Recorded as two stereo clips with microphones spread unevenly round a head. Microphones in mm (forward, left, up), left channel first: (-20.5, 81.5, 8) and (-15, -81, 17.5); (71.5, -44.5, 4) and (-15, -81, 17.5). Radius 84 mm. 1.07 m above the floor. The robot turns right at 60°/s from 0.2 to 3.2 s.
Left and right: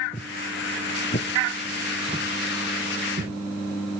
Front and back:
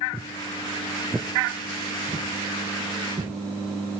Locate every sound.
0.1 s footsteps: 155° left, 1.2 m; by 3.3 s 115° right, 5 m